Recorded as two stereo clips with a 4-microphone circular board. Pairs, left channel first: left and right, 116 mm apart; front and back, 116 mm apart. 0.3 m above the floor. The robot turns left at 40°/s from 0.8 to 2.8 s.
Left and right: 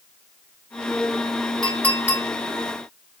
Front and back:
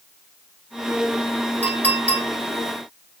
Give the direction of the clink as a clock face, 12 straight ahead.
6 o'clock.